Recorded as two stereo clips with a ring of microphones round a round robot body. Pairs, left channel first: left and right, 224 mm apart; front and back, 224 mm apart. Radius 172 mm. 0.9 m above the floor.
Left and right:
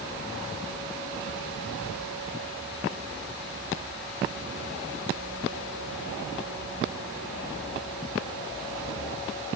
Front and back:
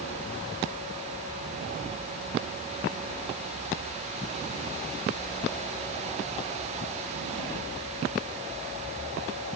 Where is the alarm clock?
No alarm clock in this recording.